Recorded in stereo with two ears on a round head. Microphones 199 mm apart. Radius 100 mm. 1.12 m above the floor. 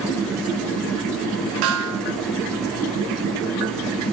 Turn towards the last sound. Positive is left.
turn(degrees=-65)  # may be behind; listen again after turning